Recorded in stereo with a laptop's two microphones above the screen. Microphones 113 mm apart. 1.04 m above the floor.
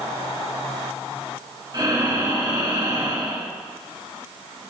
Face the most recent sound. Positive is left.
turn(degrees=-30)  # may be behind; listen again after turning